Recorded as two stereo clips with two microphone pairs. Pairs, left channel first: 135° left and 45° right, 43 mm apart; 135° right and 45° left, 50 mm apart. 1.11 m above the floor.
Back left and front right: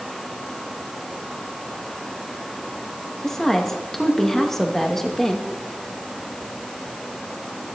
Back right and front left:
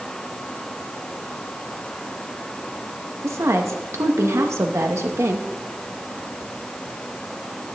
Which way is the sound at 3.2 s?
55° left.